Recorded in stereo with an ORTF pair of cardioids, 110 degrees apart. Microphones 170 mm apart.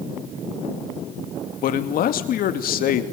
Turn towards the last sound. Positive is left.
turn(degrees=60)